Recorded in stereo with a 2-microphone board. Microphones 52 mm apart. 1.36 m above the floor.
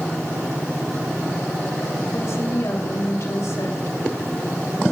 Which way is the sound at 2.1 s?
70° left (ahead or behind).